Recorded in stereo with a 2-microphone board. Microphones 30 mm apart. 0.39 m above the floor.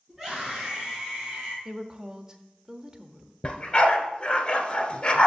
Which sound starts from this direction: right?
A woman speaking, at 1.6 s.